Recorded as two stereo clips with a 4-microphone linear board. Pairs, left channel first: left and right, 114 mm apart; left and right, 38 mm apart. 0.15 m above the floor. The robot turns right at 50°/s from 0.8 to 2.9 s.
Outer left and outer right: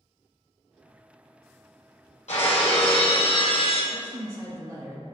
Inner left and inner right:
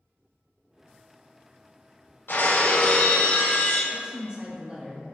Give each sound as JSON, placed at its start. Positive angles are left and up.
{"t": 2.3, "sound": "breaking glass", "azimuth_deg": 95, "distance_m": 1.8}
{"t": 3.9, "sound": "a woman speaking", "side_deg": -40, "distance_m": 2.0}